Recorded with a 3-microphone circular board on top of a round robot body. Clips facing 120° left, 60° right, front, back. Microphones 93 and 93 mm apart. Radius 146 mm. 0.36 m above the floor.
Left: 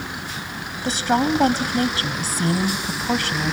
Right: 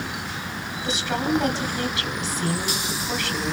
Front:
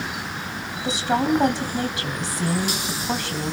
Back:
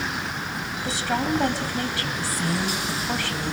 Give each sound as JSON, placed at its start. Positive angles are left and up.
{"t": 0.8, "sound": "a woman speaking", "azimuth_deg": 75, "distance_m": 3.0}